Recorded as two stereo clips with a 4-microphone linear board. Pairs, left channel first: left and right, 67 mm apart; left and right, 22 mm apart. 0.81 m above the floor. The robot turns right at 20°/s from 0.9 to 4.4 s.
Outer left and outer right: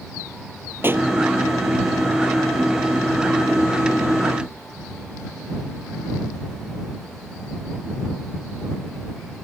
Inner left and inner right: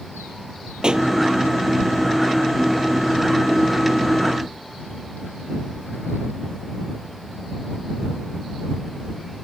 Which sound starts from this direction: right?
A pop, at 0.8 s.